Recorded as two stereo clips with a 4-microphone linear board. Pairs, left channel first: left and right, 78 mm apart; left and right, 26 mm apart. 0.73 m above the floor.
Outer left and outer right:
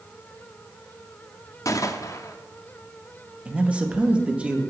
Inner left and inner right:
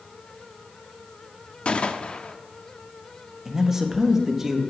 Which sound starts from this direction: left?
A gunshot, at 1.6 s.